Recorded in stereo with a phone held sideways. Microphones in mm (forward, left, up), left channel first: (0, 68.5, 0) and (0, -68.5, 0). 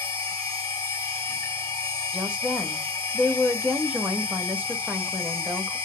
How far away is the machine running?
About 1.3 m.